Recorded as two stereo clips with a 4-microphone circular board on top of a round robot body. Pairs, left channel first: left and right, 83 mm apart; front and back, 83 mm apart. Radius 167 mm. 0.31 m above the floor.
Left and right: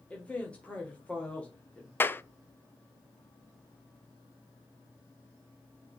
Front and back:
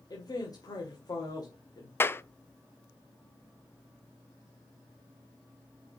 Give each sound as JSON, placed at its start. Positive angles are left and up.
{"t": 0.1, "sound": "a man speaking", "azimuth_deg": 20, "distance_m": 2.0}
{"t": 2.0, "sound": "a clap", "azimuth_deg": 45, "distance_m": 0.7}